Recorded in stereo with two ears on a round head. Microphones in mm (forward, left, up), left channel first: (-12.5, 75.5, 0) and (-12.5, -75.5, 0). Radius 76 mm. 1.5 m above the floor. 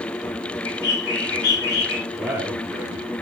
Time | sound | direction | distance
0.7 | a bird | 65° left (ahead or behind) | 4.5 m
2.1 | a man speaking | 10° right (ahead or behind) | 1.2 m